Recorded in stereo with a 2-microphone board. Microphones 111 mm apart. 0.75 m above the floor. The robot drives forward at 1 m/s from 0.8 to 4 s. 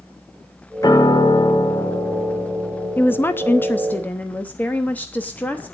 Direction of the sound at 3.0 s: 15° left (ahead or behind).